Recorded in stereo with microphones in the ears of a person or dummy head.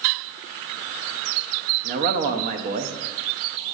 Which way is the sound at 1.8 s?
45° right (ahead or behind).